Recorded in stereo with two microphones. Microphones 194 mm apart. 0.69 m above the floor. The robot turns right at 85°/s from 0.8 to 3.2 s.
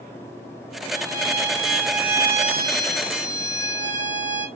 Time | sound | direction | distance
0.9 | a violin | 85° left | 1.9 m